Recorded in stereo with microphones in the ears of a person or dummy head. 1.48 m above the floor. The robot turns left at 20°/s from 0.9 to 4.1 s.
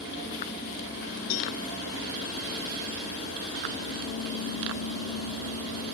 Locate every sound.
1.3 s a cowbell: 75° left (ahead or behind), 1.6 m; by 1.5 s 70° left (ahead or behind), 1.6 m